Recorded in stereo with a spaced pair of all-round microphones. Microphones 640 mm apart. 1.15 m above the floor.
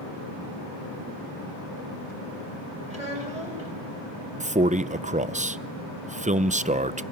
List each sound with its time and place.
2.9 s a child speaking: 70° right (ahead or behind), 6 m
4.4 s a man speaking: 15° right (ahead or behind), 0.5 m